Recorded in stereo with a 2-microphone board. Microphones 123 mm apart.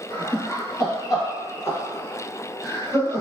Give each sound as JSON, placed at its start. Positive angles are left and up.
{"t": 0.1, "sound": "laughter", "side_deg": 40, "distance_m": 1.2}